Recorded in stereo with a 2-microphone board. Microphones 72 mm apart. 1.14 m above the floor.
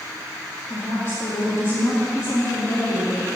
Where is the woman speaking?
60° left (ahead or behind), 1.8 m.